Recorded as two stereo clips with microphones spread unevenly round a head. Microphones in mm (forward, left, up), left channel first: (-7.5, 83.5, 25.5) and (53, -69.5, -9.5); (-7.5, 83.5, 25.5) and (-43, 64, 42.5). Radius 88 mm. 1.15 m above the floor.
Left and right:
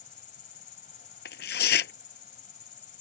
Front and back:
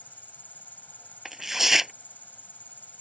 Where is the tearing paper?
135° left.